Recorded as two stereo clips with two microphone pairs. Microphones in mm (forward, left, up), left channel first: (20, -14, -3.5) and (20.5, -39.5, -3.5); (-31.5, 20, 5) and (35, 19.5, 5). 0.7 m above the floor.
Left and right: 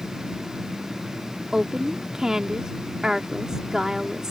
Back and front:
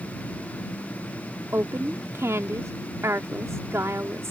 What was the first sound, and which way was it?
A woman speaking, 35° right.